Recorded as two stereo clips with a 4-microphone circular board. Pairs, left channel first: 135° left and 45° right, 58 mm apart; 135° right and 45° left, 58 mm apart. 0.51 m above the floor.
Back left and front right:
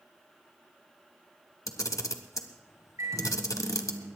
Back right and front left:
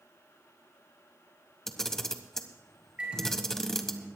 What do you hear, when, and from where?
1.7 s a camera shutter: 140° left, 1.3 m
3.0 s a microwave: 25° right, 7.5 m